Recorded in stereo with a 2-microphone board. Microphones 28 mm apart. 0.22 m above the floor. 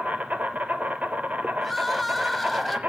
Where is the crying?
5° left (ahead or behind), 1.2 m.